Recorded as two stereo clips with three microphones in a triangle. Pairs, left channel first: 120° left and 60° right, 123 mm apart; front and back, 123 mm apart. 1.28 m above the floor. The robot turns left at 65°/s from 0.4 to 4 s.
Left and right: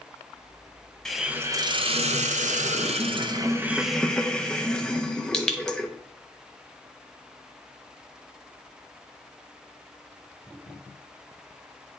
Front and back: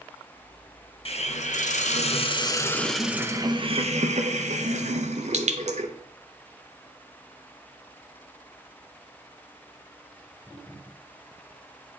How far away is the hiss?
About 0.7 m.